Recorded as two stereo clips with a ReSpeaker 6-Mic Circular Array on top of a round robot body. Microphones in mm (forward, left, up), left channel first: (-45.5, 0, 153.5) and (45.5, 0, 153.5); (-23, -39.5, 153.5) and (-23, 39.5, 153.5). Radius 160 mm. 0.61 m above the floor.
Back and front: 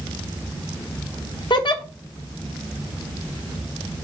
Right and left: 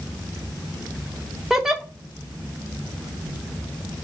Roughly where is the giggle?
Behind.